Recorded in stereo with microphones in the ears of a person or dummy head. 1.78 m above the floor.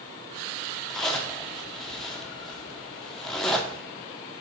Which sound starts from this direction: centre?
A zipper, at 0.9 s.